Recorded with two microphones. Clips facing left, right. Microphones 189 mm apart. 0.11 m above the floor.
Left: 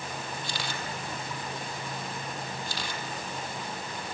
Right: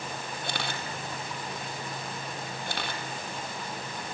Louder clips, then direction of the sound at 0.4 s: Right 1 dB; 70° right (ahead or behind).